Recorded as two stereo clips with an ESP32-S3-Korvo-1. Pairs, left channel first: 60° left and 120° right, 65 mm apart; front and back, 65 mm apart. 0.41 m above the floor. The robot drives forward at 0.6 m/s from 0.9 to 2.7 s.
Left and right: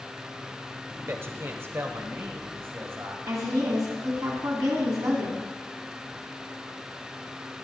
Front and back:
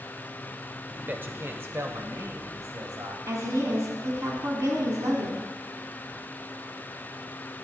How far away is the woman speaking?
About 3 m.